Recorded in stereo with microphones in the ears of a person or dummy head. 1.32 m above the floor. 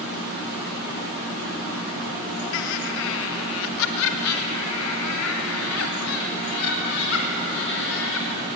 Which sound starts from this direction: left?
Laughter, at 2.5 s.